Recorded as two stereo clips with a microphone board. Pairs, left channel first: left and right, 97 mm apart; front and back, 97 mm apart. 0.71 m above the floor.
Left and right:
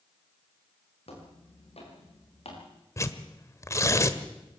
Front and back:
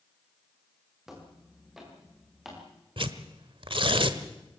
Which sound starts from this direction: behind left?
Tearing paper, at 3.0 s.